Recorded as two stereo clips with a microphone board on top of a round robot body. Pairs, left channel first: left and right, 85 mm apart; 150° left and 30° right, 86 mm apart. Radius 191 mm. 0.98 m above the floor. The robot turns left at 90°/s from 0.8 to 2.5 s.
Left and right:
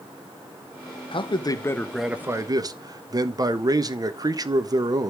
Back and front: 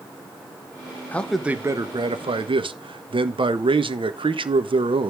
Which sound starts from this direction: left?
A man speaking, at 1.1 s.